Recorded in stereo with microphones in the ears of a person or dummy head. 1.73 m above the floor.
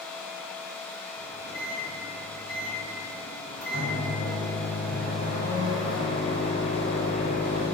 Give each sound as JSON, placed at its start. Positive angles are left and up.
{"t": 1.2, "sound": "a microwave", "side_deg": 5, "distance_m": 2.0}